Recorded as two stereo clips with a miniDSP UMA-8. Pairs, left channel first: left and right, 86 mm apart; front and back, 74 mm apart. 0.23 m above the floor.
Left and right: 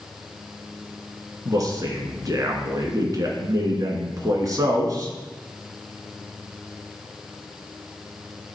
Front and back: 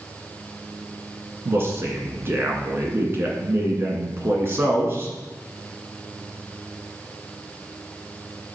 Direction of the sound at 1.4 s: 130° right.